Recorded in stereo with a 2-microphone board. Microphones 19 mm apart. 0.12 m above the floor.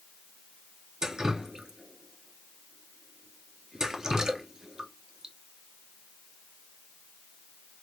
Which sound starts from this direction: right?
Dripping, at 1.0 s.